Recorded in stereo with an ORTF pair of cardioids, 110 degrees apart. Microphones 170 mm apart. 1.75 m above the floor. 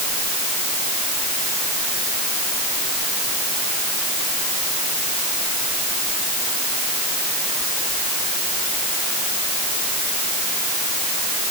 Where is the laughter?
I don't hear laughter.